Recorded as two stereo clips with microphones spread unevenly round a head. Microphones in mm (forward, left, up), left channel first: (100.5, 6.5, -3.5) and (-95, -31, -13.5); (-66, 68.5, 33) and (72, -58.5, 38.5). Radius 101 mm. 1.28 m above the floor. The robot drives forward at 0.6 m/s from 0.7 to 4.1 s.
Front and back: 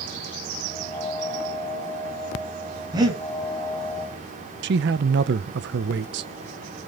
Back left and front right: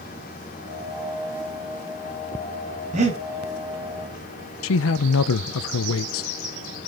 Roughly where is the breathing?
Right.